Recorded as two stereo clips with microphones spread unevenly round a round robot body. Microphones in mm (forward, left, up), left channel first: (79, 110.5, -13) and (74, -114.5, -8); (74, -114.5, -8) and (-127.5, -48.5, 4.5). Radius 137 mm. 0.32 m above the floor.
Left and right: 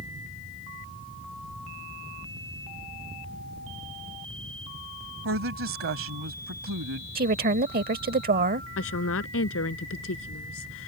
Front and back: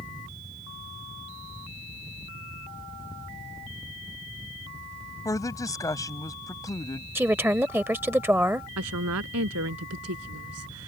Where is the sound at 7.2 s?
120° right.